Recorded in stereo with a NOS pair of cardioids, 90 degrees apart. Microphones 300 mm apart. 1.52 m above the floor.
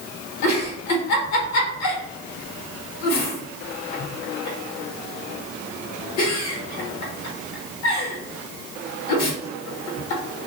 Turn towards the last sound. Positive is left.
turn(degrees=65)